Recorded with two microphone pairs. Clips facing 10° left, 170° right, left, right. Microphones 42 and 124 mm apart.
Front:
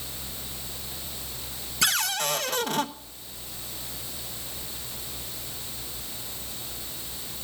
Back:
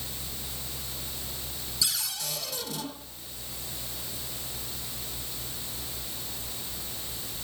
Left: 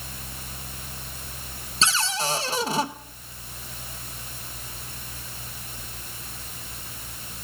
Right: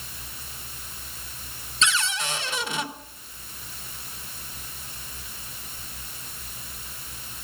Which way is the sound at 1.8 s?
30° left.